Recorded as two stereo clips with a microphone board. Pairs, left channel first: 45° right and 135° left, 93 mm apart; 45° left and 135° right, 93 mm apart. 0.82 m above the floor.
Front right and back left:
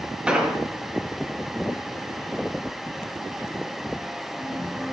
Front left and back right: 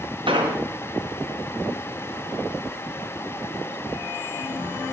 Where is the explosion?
145° right, 2.0 m.